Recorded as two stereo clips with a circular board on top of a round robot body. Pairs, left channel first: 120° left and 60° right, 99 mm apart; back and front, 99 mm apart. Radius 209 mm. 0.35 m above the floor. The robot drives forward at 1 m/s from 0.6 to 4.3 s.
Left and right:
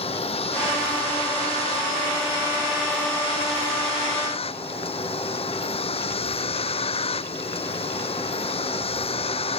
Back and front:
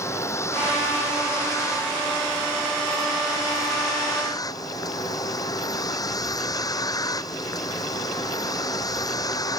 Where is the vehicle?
120° left; by 9.6 s 130° left.